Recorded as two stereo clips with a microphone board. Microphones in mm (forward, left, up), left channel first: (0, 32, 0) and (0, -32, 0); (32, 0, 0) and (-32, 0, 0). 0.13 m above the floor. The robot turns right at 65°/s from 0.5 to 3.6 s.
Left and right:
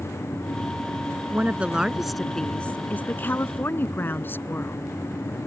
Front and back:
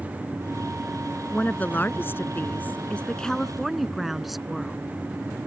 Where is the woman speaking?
55° right; by 4.8 s 95° left.